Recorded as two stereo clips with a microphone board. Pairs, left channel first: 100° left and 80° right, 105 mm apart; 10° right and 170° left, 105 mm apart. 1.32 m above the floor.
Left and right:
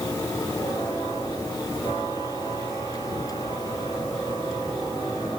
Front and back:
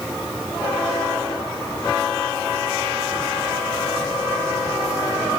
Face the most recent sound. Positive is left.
No sound to turn to.